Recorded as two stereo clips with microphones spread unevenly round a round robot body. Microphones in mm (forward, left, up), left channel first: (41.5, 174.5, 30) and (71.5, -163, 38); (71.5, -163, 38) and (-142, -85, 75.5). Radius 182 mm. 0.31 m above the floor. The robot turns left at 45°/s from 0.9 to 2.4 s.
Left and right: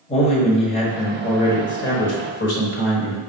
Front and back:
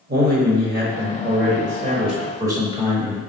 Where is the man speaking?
150° left, 1.2 m; by 3.2 s 80° left, 1.2 m.